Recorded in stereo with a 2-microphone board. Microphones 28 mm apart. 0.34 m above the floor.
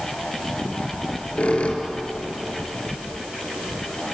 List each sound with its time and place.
0.9 s a squeak: 50° left (ahead or behind), 3.5 m